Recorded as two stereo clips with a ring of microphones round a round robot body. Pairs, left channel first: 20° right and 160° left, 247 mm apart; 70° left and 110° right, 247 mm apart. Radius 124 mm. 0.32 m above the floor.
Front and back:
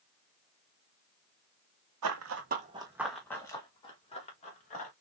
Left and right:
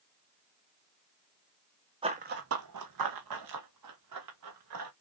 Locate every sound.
2.0 s running footsteps: 175° left, 1.1 m; by 4.9 s 85° right, 3.5 m